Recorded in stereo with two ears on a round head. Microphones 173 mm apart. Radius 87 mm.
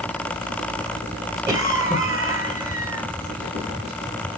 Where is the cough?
10° right (ahead or behind), 1.7 m.